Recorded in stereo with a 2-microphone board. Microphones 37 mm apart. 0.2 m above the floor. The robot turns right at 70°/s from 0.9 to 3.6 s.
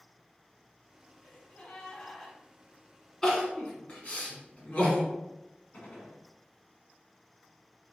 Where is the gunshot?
45° left (ahead or behind), 1.5 m.